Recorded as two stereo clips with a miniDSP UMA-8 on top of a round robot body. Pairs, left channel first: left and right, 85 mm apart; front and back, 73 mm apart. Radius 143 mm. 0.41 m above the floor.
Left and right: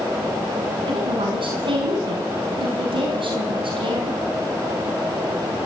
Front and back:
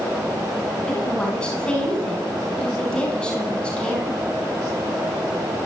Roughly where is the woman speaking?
Right.